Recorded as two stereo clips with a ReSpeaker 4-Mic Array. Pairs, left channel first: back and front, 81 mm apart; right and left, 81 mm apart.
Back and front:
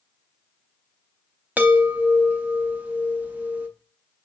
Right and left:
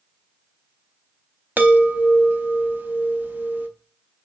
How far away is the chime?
About 0.6 m.